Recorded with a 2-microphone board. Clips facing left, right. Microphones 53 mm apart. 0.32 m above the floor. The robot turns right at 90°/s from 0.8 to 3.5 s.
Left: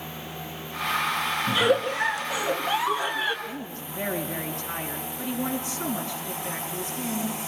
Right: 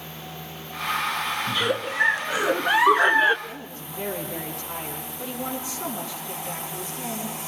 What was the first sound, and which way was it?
A giggle, 160° left.